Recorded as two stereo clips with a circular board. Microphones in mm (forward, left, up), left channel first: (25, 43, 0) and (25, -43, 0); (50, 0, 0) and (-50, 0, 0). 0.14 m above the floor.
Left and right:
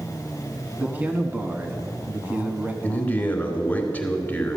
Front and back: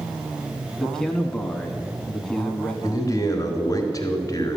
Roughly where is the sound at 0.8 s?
Right.